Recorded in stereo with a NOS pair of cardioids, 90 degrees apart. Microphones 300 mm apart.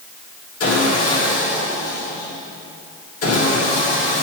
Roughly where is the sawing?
Ahead left.